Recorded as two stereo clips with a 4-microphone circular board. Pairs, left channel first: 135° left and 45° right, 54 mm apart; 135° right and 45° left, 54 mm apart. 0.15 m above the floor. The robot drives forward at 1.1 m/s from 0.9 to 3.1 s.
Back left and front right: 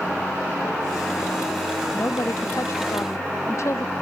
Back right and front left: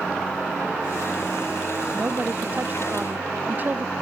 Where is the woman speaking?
100° left.